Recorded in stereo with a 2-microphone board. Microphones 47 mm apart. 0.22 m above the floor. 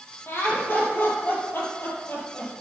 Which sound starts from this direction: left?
Laughter, at 0.3 s.